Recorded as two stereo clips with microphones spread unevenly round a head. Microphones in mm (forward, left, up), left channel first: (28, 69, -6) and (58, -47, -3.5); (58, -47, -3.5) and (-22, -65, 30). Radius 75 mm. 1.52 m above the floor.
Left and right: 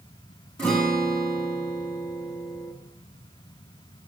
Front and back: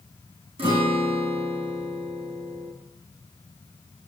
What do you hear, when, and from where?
0.6 s a guitar: 175° right, 2.5 m